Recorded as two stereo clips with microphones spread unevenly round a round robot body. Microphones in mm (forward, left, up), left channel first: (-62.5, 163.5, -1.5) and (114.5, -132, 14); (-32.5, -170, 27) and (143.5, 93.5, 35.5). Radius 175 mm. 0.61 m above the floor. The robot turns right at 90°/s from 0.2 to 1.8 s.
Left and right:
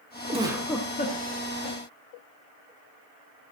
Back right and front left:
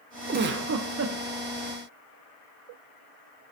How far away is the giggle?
About 1.2 m.